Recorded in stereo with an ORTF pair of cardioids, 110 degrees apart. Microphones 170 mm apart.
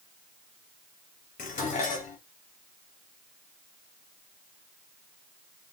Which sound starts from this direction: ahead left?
Dishes clattering, at 1.4 s.